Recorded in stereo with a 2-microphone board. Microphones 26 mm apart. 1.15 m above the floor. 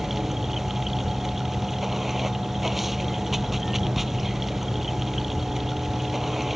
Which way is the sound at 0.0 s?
10° right (ahead or behind).